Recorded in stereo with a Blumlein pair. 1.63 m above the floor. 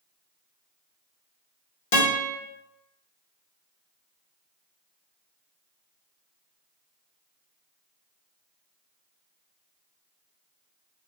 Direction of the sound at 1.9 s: 50° left.